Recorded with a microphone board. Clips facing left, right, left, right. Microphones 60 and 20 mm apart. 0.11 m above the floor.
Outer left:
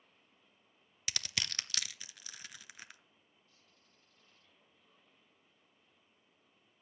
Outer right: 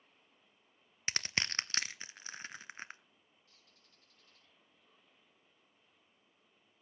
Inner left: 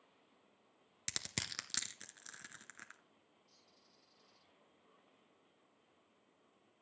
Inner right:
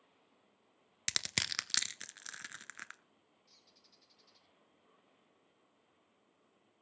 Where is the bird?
85° right, 5 m.